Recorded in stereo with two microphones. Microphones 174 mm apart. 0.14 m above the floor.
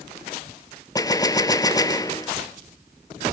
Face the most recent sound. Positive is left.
turn(degrees=20)  # may be behind; listen again after turning